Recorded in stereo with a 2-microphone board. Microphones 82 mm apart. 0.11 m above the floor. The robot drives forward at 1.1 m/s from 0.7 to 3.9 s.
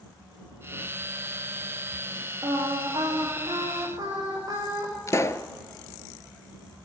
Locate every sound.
2.4 s singing: 50° right (ahead or behind), 8 m; by 4.9 s 40° right (ahead or behind), 9 m
5.1 s a pop: 40° left (ahead or behind), 0.8 m